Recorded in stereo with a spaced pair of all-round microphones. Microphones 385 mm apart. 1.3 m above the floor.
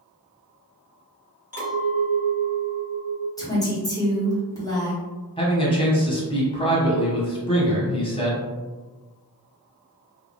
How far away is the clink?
About 1.2 m.